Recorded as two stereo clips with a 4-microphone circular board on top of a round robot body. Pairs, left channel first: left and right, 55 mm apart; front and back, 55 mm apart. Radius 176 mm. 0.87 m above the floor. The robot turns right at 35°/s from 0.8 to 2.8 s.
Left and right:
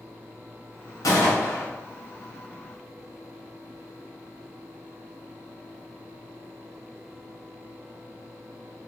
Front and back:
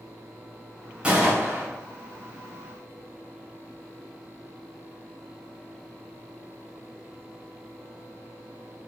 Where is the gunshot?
110° left, 2.5 m; by 1.7 s 130° left, 2.5 m.